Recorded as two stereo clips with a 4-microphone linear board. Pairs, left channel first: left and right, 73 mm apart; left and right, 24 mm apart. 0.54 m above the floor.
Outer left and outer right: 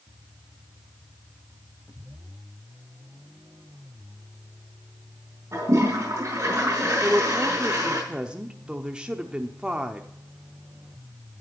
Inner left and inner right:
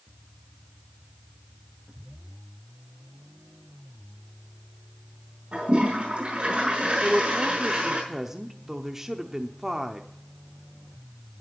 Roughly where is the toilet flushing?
Right.